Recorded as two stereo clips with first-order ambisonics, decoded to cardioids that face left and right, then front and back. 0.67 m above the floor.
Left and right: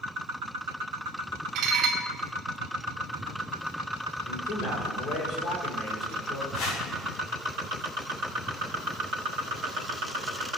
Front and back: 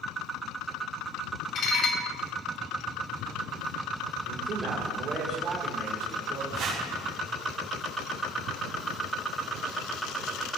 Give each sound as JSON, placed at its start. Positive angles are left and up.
{"t": 1.6, "sound": "dishes clattering", "azimuth_deg": -50, "distance_m": 0.9}
{"t": 4.3, "sound": "a man speaking", "azimuth_deg": 120, "distance_m": 2.5}
{"t": 6.5, "sound": "a whoosh", "azimuth_deg": 130, "distance_m": 2.0}